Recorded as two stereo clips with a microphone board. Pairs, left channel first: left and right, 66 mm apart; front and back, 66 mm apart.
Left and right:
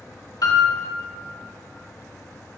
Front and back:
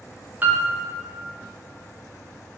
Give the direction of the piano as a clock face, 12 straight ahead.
8 o'clock.